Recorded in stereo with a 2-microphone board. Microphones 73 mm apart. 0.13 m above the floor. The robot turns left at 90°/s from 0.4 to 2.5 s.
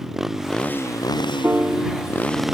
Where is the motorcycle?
175° right; by 2.5 s 5° right.